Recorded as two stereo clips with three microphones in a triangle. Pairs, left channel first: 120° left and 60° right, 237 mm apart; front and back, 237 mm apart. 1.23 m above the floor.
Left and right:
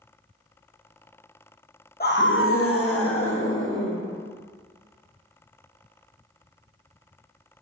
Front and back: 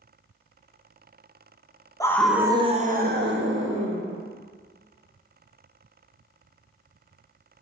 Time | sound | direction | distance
2.0 | a scream | 75° left | 1.1 m